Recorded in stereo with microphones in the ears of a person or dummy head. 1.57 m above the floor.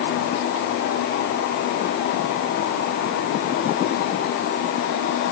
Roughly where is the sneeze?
No sneeze in this recording.